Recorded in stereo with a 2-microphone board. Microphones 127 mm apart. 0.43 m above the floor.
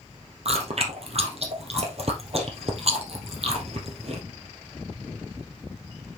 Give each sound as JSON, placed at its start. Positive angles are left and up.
{"t": 0.5, "sound": "chewing", "side_deg": -50, "distance_m": 2.5}